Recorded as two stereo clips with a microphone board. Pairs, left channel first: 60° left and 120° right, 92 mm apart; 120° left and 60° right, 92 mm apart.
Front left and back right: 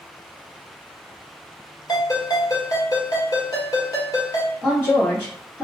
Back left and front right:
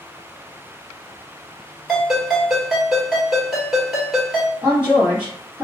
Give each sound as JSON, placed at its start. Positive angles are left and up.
{"t": 1.9, "sound": "a ringtone", "azimuth_deg": 25, "distance_m": 1.6}
{"t": 4.6, "sound": "a woman speaking", "azimuth_deg": 0, "distance_m": 1.9}